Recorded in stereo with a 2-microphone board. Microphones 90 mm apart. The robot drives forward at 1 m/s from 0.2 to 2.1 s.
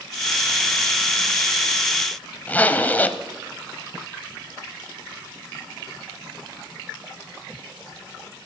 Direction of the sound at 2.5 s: 20° left (ahead or behind).